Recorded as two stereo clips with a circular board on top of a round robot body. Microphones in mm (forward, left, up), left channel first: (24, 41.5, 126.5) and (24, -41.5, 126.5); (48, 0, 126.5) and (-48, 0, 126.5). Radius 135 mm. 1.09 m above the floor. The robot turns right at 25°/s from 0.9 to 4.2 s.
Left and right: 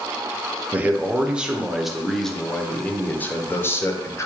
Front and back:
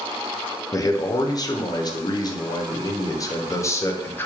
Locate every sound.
0.7 s a man speaking: 25° right, 0.6 m; by 4.3 s 55° left, 0.6 m